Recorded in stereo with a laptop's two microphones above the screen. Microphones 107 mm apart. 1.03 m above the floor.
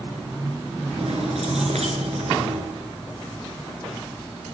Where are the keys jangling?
80° right, 9.5 m.